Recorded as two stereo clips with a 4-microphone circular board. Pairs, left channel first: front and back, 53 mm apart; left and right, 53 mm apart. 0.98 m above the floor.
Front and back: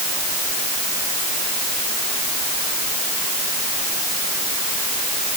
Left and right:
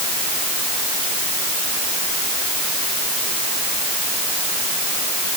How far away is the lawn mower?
I don't hear a lawn mower.